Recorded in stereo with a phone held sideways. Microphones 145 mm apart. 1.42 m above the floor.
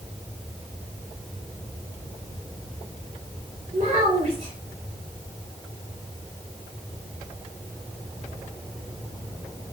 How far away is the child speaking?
About 3.5 m.